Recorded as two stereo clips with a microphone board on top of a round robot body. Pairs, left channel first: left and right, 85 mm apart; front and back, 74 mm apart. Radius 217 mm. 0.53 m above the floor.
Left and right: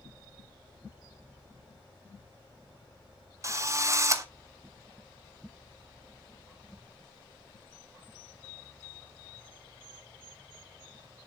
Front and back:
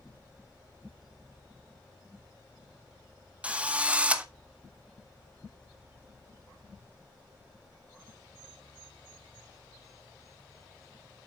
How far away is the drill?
About 1.5 m.